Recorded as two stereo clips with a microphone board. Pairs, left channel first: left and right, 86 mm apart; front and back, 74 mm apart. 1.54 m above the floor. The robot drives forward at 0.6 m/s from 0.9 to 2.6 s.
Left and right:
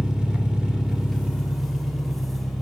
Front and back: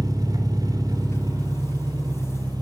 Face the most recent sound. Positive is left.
turn(degrees=-175)